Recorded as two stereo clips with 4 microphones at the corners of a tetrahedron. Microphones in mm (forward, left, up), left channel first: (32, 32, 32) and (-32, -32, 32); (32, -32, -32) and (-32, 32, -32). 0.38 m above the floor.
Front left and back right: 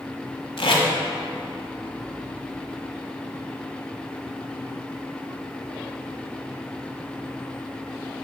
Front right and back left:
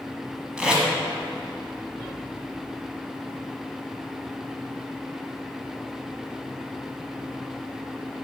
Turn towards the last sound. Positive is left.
turn(degrees=55)